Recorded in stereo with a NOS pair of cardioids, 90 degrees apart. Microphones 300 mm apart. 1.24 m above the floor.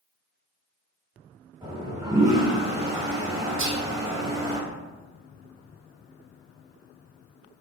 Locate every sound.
1.6 s a toilet flushing: 10° right, 1.4 m
3.6 s whispering: 45° right, 0.8 m